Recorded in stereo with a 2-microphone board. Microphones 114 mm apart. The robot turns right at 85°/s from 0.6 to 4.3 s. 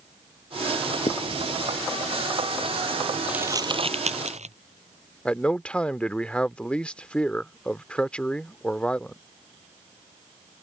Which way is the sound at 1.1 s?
65° left (ahead or behind).